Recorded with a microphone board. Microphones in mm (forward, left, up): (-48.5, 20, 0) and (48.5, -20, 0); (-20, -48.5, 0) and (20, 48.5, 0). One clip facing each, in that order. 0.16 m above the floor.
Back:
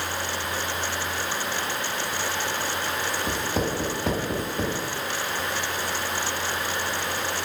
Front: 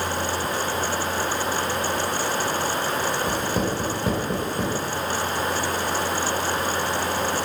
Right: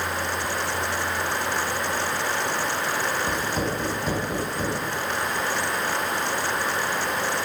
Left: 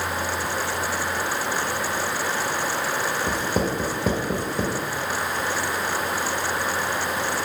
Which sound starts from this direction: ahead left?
Writing, at 3.3 s.